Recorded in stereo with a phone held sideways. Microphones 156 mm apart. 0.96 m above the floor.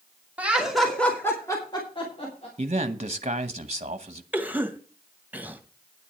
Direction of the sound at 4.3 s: 10° right (ahead or behind).